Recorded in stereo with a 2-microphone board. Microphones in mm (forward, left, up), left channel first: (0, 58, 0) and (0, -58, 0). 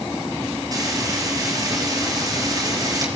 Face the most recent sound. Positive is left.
turn(degrees=-35)  # may be behind; listen again after turning